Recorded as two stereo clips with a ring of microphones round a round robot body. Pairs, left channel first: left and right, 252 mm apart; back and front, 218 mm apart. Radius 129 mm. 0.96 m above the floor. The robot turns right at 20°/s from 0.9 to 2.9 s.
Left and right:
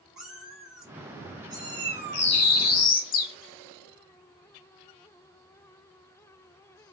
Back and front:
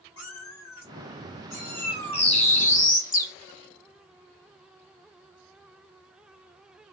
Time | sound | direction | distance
0.2 | a cat meowing | 175° right | 1.5 m
2.1 | a bird | 120° left | 1.2 m